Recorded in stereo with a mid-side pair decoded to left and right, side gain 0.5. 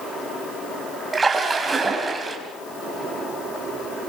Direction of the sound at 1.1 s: 25° right.